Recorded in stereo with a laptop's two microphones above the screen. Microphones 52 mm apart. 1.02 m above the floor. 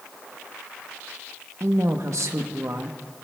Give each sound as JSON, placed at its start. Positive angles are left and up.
{"t": 1.6, "sound": "a woman speaking", "side_deg": -65, "distance_m": 0.9}